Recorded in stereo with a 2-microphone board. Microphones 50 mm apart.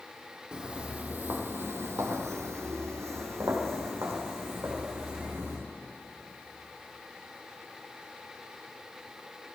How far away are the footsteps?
About 1.6 m.